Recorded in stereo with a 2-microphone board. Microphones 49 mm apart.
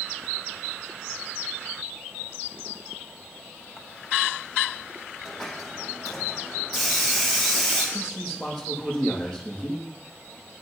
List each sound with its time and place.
5.2 s a hiss: centre (ahead or behind), 5.5 m
7.9 s a man speaking: 10° left (ahead or behind), 5.5 m